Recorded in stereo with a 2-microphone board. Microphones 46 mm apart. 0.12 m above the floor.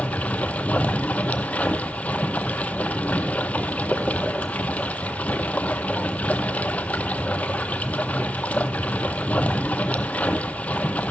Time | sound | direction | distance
0.0 | running water | 35° left (ahead or behind) | 0.7 m